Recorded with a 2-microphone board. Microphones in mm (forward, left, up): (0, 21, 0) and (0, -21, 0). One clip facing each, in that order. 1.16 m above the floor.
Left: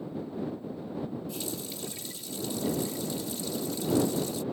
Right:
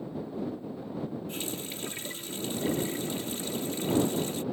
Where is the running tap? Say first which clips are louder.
Even; 45° right (ahead or behind).